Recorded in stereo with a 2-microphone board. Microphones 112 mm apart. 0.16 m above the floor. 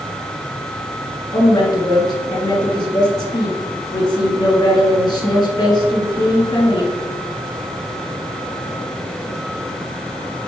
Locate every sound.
1.3 s a woman speaking: 40° left (ahead or behind), 2.5 m